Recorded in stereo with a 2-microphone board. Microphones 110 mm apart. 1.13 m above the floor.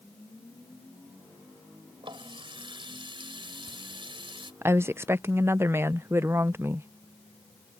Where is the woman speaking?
25° right (ahead or behind).